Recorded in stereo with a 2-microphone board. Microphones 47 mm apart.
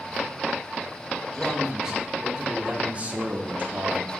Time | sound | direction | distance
1.3 | a man speaking | 10° right (ahead or behind) | 3.5 m